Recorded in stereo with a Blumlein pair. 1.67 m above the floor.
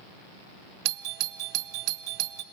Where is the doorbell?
40° right, 0.7 m.